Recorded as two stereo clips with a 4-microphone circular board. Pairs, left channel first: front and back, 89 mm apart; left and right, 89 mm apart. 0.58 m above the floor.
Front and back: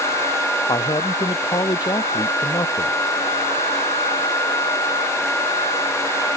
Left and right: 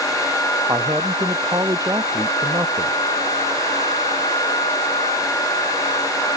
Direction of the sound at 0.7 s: 35° right.